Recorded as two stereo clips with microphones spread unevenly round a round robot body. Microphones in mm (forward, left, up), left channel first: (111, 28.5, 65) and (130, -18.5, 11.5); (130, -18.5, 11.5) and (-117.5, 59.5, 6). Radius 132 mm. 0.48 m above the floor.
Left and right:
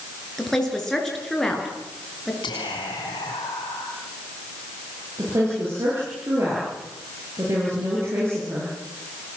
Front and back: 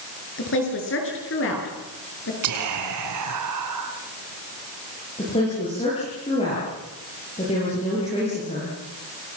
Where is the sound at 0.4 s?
25° left, 8.5 m.